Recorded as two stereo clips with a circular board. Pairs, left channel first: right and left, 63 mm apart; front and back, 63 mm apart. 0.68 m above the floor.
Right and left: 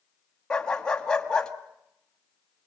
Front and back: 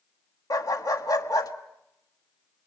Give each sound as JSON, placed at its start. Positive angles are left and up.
{"t": 0.5, "sound": "a dog barking", "azimuth_deg": -10, "distance_m": 1.6}